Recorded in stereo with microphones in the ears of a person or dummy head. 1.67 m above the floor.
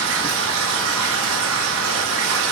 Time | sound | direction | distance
0.0 | running water | 75° right (ahead or behind) | 1.3 m